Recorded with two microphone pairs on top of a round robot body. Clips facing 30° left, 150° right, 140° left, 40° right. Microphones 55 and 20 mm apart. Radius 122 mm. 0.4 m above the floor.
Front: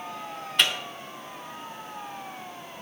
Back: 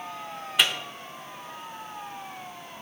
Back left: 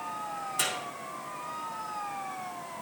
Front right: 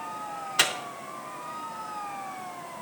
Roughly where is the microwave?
Right.